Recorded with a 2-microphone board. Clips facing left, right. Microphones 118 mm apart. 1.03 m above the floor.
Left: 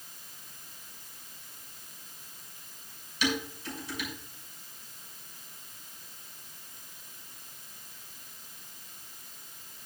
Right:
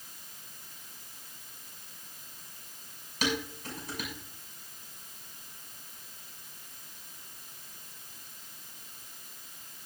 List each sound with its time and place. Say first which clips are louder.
3.2 s dishes clattering: left 1 dB; 45° right (ahead or behind), 6.5 m